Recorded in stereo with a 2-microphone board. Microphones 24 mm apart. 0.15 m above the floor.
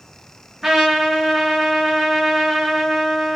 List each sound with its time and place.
0.6 s a trumpet: 20° right (ahead or behind), 2 m